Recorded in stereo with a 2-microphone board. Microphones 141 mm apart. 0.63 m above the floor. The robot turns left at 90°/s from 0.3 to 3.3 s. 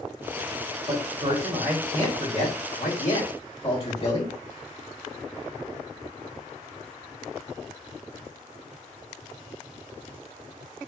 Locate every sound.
0.9 s a man speaking: 75° right (ahead or behind), 2.5 m; by 4.3 s 40° left (ahead or behind), 2.5 m